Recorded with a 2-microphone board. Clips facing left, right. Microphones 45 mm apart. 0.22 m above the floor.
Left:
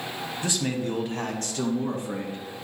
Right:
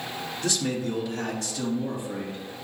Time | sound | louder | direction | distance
0.4 | a man speaking | even | 25° left (ahead or behind) | 1.1 m